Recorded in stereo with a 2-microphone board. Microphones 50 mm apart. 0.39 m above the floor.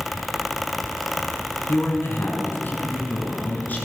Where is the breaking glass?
I don't hear breaking glass.